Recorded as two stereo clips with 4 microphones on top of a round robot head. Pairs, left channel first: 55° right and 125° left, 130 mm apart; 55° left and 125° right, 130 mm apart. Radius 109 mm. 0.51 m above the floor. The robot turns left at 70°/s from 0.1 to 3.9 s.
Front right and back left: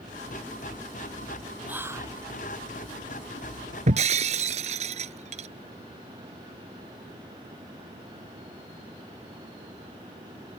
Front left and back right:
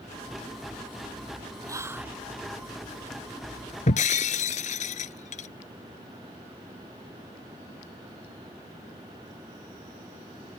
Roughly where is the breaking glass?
Left.